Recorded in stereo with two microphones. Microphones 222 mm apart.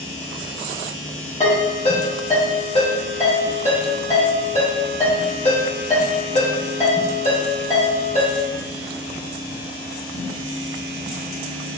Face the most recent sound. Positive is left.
turn(degrees=30)  # may be behind; listen again after turning